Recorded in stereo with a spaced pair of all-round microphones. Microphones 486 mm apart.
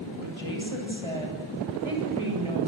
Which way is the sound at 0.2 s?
85° right.